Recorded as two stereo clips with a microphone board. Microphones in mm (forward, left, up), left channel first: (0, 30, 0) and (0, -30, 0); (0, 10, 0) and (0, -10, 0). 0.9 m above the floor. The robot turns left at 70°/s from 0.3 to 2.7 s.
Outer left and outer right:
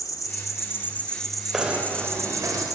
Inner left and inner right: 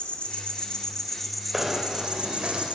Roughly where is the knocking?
Ahead.